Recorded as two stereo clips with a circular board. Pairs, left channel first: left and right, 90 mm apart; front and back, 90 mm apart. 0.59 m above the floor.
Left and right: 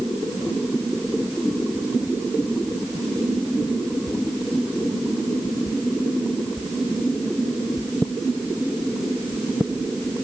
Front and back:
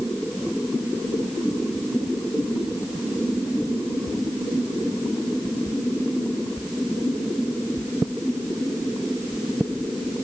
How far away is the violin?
I don't hear a violin.